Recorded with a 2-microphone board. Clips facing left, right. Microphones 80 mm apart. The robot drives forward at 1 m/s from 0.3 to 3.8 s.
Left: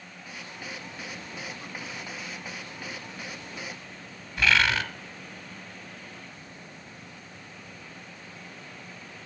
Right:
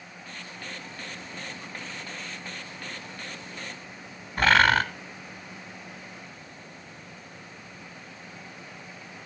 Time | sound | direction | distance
4.4 | a bird | 45° right (ahead or behind) | 1.1 m